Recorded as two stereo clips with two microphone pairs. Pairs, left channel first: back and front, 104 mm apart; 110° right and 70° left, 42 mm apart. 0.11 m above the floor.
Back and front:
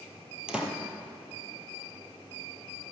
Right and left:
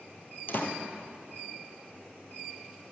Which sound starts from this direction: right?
A door slam, at 0.5 s.